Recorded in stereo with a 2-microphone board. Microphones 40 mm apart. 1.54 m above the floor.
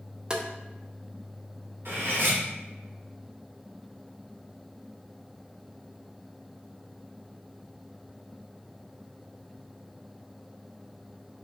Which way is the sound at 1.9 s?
60° right (ahead or behind).